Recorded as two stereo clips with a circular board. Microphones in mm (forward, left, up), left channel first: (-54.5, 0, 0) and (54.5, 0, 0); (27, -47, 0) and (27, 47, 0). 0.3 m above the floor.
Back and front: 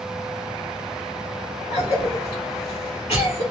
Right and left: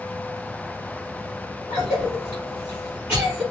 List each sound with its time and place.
1.7 s a cough: 150° left, 3 m